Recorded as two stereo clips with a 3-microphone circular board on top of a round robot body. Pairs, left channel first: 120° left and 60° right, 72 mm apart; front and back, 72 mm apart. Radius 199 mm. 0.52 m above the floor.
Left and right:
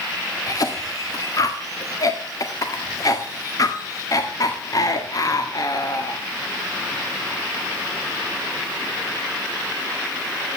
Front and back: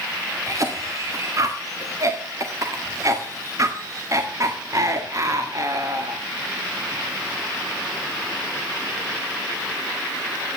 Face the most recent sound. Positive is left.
turn(degrees=145)